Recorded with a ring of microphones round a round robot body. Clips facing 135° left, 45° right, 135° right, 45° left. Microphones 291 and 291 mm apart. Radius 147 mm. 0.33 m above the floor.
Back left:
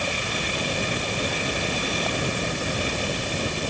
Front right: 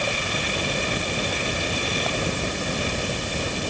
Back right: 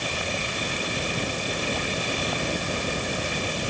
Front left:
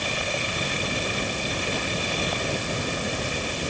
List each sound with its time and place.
Only background noise.